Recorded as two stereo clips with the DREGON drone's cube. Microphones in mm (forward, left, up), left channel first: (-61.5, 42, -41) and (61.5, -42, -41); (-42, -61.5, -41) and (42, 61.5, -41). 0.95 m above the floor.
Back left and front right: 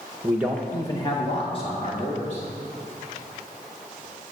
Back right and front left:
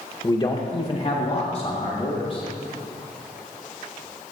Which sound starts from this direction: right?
A man speaking, at 0.2 s.